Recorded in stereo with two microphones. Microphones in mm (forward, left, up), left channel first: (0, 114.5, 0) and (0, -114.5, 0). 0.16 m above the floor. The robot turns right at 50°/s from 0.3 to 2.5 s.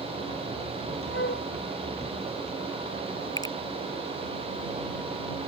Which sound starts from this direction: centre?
A finger snap, at 3.4 s.